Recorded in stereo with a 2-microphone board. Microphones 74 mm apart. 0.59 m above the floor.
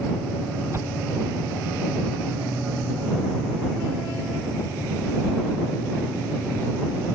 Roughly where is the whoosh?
Right.